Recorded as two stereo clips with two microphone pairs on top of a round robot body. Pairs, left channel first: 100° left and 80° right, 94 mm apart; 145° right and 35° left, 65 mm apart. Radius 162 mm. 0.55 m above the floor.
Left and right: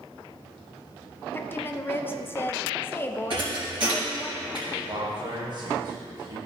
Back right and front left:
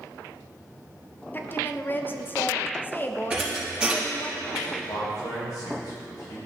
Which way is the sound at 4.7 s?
115° right.